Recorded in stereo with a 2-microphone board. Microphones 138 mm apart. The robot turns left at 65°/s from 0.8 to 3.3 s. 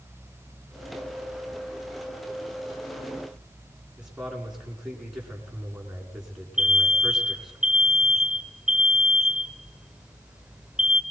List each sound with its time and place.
4.0 s a man speaking: 5° right (ahead or behind), 6 m
6.6 s an alarm: 5° right (ahead or behind), 1.2 m